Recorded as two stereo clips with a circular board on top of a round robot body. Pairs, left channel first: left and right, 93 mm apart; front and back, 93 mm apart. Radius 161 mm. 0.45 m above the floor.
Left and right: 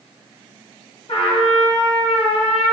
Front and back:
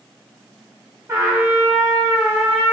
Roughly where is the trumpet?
Behind left.